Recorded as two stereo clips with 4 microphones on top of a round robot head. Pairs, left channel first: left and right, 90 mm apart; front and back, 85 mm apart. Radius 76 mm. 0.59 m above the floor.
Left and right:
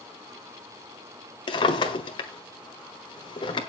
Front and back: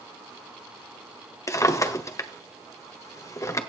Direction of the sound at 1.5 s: 50° left.